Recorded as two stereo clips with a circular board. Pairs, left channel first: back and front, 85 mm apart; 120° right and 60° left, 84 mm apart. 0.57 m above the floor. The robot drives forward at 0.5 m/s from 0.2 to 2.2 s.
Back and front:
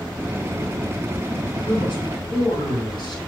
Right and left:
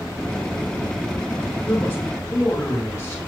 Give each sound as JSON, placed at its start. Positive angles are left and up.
{"t": 1.6, "sound": "a man speaking", "azimuth_deg": -175, "distance_m": 3.5}